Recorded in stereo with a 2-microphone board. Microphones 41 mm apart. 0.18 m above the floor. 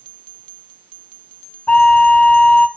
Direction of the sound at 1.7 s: 30° left (ahead or behind).